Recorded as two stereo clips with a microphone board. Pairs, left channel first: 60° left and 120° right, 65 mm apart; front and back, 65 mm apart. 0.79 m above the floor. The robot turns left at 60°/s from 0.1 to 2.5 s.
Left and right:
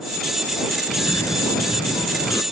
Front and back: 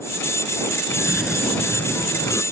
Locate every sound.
0.9 s a cough: 115° left; by 2.4 s 25° left